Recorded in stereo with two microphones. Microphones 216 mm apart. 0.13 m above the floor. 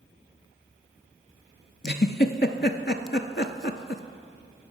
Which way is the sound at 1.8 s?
55° left (ahead or behind).